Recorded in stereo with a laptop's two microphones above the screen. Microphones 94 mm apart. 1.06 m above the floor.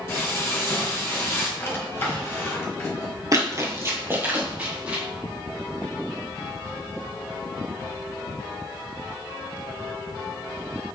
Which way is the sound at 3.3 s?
40° right (ahead or behind).